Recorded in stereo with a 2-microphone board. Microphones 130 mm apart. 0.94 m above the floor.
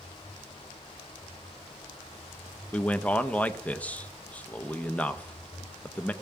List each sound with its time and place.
2.7 s a man speaking: 10° left (ahead or behind), 0.7 m